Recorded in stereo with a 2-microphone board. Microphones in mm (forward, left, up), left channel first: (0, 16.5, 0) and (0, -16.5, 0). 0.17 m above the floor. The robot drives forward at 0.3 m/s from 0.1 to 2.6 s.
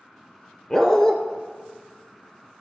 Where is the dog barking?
15° left (ahead or behind), 1.1 m.